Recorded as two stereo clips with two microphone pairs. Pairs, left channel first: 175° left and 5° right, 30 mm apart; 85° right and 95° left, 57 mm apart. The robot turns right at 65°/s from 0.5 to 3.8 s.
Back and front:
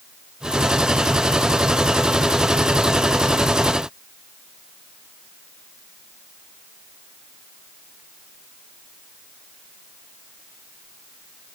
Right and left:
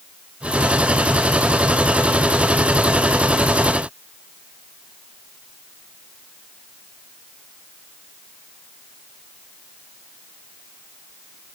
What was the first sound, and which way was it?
Only background noise.